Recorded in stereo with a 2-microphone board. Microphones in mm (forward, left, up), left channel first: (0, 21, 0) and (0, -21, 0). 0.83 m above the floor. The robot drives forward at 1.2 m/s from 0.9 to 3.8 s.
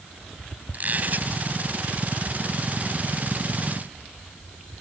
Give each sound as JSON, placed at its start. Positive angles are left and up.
{"t": 0.7, "sound": "a squeak", "side_deg": -40}